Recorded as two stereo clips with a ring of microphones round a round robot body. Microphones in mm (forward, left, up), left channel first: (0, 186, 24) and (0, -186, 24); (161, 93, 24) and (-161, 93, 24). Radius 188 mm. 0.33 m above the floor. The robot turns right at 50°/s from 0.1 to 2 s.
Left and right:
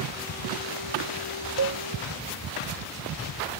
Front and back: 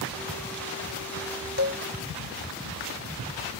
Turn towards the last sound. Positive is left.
turn(degrees=-10)